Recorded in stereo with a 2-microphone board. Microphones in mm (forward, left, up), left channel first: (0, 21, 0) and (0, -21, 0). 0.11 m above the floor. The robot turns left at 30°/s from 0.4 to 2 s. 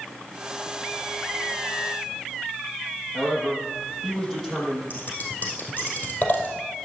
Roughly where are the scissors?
Left.